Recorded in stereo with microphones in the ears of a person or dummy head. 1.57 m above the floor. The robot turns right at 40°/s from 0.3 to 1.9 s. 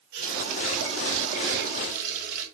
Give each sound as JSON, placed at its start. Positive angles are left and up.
{"t": 0.1, "sound": "a running tap", "azimuth_deg": -115, "distance_m": 4.0}